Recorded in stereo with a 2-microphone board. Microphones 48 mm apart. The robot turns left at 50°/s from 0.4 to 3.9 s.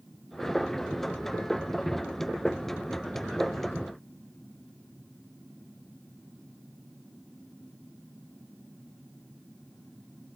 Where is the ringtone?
No ringtone in this recording.